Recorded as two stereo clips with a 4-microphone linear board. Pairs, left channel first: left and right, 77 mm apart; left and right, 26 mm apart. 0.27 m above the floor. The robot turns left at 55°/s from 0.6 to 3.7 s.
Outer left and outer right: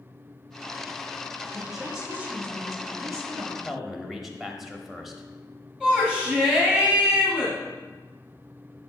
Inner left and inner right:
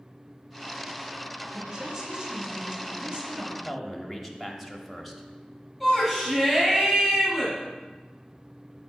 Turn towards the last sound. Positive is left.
turn(degrees=-10)  # may be behind; listen again after turning